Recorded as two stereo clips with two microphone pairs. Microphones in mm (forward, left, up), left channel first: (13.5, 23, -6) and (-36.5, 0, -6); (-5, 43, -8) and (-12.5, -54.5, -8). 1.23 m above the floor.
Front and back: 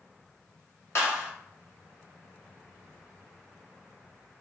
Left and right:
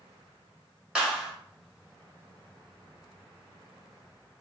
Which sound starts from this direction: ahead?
A clap, at 0.9 s.